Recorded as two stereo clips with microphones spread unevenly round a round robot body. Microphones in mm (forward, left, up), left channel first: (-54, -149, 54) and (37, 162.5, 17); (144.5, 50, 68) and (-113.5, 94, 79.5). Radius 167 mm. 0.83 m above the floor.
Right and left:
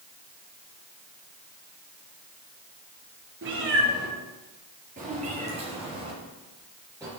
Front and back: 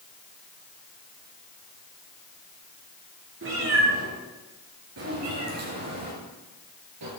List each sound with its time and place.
3.4 s a cat meowing: 130° left, 5.5 m; by 7.1 s 155° left, 6.5 m